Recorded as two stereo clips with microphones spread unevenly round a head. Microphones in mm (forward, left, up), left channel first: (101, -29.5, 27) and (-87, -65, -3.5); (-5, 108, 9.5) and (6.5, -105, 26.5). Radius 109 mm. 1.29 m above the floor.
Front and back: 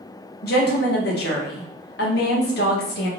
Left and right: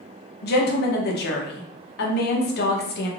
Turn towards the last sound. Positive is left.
turn(degrees=50)